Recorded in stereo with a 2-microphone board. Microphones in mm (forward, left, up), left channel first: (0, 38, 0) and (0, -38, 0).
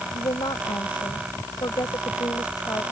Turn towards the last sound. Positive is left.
turn(degrees=55)  # may be behind; listen again after turning